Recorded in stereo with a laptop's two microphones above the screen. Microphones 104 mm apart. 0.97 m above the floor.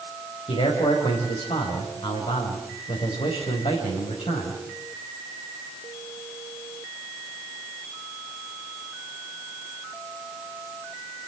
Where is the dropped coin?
I don't hear a dropped coin.